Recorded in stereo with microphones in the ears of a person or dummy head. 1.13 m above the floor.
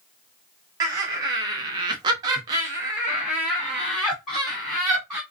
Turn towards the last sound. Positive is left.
turn(degrees=0)  # may be behind; listen again after turning